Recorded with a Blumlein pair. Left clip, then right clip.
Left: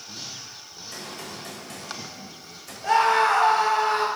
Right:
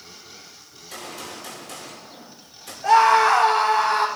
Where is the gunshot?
40° right, 3 m.